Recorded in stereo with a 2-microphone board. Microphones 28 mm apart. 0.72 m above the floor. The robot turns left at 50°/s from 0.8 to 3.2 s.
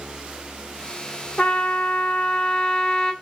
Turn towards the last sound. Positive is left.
turn(degrees=15)